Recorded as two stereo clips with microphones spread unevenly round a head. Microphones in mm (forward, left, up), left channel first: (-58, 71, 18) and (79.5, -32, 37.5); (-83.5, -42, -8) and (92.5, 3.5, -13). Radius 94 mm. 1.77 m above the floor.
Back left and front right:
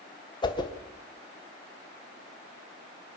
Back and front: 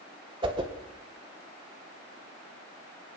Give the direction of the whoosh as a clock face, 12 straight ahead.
9 o'clock.